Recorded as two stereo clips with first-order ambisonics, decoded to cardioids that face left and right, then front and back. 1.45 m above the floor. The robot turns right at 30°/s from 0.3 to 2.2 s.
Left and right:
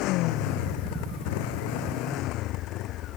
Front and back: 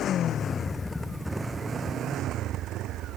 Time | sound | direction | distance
0.0 | a motorcycle | 55° left | ?